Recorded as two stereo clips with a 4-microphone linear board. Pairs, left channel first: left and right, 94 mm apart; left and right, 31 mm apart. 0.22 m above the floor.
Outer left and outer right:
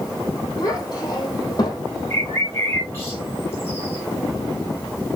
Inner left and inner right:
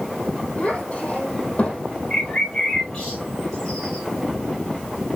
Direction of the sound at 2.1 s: 25° left (ahead or behind).